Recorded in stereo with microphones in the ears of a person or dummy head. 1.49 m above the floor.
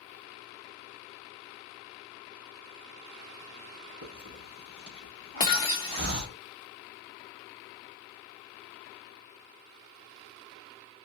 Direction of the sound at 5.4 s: 30° left (ahead or behind).